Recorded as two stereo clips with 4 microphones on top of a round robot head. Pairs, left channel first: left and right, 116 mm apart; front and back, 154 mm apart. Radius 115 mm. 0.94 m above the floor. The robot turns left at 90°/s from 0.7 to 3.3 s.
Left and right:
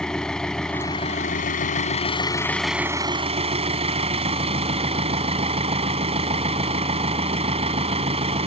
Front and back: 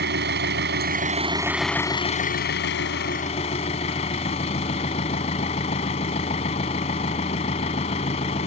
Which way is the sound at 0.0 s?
175° left.